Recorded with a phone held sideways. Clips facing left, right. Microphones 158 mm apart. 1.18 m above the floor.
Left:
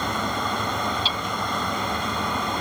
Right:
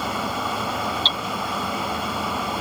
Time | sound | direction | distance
0.0 | a fan | 5° right (ahead or behind) | ?
1.1 | hammering | 10° left (ahead or behind) | ?